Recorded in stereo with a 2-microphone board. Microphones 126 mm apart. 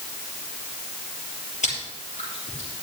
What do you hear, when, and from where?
1.6 s chewing: 70° left (ahead or behind), 6 m